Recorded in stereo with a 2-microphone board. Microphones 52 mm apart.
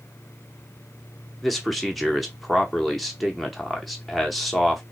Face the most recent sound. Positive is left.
turn(degrees=5)  # may be behind; listen again after turning